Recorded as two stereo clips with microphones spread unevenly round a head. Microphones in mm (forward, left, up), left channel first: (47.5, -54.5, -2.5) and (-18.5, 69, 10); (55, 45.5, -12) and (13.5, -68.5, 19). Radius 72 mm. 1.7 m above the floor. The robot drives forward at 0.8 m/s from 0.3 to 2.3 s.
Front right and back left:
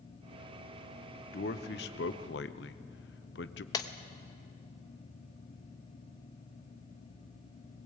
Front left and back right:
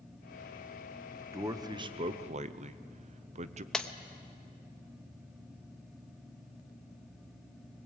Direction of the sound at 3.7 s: 50° right.